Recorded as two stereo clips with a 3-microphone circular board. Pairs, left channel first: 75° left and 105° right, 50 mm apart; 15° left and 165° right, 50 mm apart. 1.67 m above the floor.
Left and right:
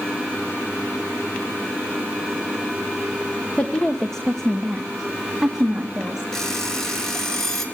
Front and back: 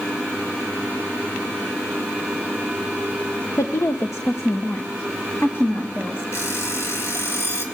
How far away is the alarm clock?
About 3.5 m.